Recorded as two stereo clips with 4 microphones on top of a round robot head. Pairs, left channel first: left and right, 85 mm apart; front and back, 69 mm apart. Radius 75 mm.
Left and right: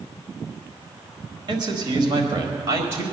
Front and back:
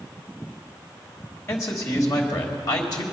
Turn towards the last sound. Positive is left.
turn(degrees=-35)